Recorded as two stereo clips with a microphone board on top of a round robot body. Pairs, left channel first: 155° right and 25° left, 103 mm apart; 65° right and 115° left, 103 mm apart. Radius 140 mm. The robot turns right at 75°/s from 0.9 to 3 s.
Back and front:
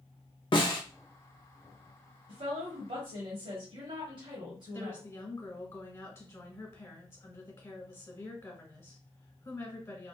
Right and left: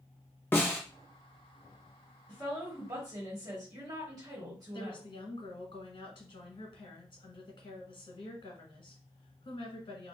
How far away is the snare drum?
About 1.5 m.